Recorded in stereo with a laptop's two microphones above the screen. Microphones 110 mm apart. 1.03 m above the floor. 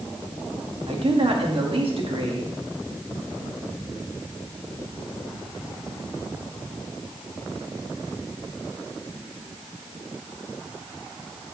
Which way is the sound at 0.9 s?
55° right (ahead or behind).